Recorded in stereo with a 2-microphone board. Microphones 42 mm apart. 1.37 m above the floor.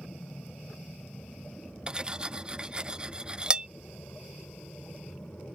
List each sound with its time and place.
0.0 s an aircraft: 75° left (ahead or behind); by 5.5 s 55° left (ahead or behind)
1.9 s cutlery clinking: 25° right (ahead or behind)